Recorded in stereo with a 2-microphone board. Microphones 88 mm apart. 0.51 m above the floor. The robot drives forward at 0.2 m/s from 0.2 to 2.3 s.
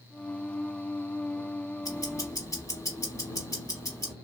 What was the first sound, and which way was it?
Ticking, 40° left (ahead or behind).